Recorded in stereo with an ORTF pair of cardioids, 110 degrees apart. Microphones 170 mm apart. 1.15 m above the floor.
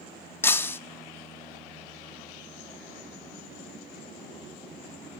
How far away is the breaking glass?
About 0.8 m.